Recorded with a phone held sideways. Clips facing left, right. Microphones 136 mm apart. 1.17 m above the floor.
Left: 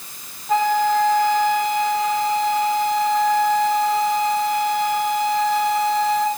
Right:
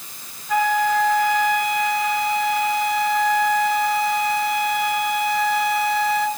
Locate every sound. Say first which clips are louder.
0.5 s a flute: left 2 dB; 30° left (ahead or behind), 0.9 m